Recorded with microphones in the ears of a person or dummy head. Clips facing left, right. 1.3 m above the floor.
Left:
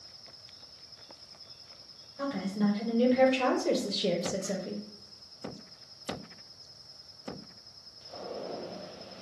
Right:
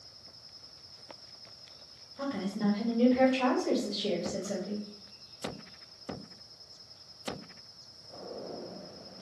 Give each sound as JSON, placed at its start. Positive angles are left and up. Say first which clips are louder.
{"t": 2.2, "sound": "a woman speaking", "louder": "left 2 dB", "side_deg": -5, "distance_m": 1.3}